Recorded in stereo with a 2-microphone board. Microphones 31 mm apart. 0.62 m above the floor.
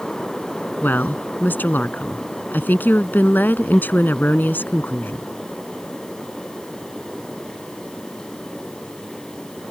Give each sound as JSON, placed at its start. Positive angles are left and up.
{"t": 0.8, "sound": "a woman speaking", "side_deg": 75}